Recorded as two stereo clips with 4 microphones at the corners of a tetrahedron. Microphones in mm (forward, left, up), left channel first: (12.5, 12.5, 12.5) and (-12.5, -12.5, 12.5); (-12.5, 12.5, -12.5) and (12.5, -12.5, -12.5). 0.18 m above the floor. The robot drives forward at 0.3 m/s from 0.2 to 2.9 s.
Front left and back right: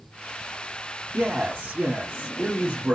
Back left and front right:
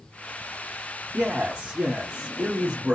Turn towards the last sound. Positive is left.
turn(degrees=-100)